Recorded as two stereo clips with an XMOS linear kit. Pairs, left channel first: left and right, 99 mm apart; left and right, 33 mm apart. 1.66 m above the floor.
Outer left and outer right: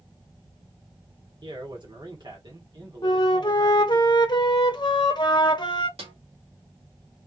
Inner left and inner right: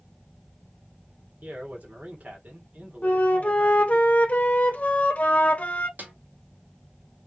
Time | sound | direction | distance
1.4 | a man speaking | 55° right (ahead or behind) | 1.5 m
3.0 | a flute | 55° left (ahead or behind) | 0.7 m
6.0 | a snare drum | 85° right | 1.1 m